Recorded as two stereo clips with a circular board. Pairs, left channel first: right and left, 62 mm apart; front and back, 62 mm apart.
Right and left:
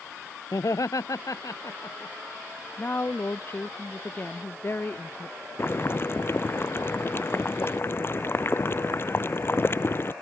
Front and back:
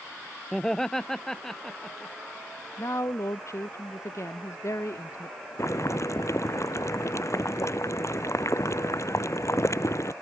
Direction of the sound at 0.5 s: 85° right.